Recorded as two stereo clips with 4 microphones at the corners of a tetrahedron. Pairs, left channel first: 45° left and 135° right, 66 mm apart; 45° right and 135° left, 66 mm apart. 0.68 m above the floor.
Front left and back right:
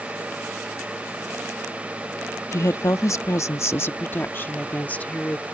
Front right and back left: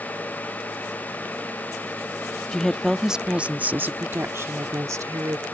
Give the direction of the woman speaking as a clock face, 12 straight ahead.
11 o'clock.